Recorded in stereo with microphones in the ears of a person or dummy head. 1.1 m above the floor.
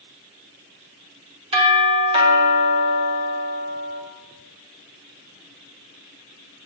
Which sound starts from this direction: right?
A doorbell, at 1.5 s.